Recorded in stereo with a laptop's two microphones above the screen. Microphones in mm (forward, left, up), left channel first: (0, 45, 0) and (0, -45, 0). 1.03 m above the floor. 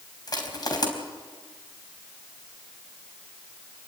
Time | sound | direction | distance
0.3 | crushing | 45° left (ahead or behind) | 4 m